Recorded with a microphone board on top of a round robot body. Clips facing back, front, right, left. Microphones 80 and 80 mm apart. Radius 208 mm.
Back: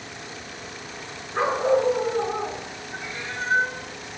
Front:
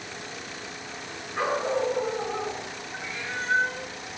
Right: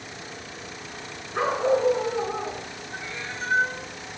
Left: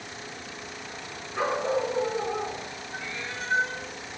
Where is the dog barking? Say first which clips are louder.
Back 5 dB, right 4 dB; 135° right, 4 m.